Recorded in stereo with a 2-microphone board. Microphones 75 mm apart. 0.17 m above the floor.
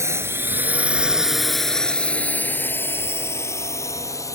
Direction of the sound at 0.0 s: 40° right (ahead or behind).